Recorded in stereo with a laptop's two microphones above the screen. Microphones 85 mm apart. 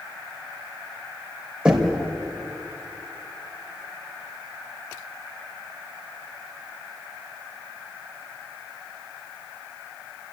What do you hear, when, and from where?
1.6 s knocking: 10° right (ahead or behind), 3.5 m